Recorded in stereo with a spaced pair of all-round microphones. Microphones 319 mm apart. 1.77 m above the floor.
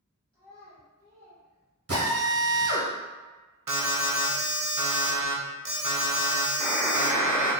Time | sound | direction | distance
0.3 | a child speaking | 15° left (ahead or behind) | 1.1 m
1.9 | a drill | 50° right (ahead or behind) | 1.3 m
3.7 | an alarm | 75° right (ahead or behind) | 0.7 m
6.6 | a buzzer | 5° left (ahead or behind) | 1.2 m